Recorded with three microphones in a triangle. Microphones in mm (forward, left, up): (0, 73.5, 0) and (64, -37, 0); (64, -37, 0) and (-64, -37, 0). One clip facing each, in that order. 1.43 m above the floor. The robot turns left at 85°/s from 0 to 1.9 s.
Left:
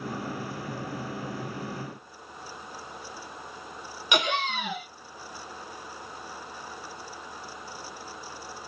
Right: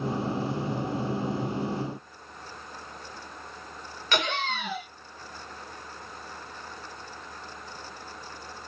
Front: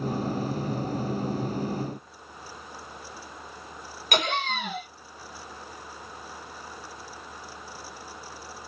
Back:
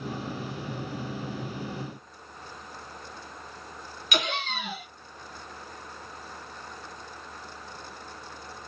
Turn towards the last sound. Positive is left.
turn(degrees=45)